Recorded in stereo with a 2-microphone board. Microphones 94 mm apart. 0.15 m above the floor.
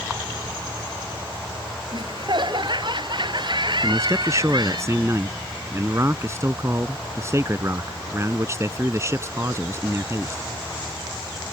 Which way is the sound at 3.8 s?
30° right (ahead or behind).